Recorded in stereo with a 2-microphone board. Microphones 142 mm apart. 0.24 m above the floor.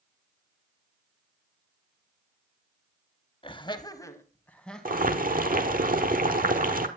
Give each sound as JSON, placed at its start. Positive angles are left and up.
{"t": 3.4, "sound": "laughter", "side_deg": 40, "distance_m": 1.1}
{"t": 4.8, "sound": "boiling", "side_deg": -85, "distance_m": 1.5}